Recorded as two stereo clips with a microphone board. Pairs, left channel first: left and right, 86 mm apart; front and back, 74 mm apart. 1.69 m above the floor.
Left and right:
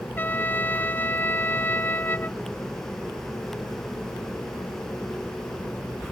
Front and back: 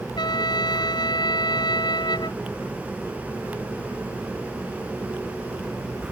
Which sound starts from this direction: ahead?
A trumpet, at 0.2 s.